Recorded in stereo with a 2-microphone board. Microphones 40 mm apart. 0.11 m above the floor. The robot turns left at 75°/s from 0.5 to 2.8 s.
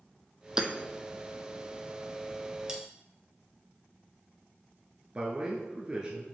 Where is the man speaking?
25° right (ahead or behind), 1.3 m.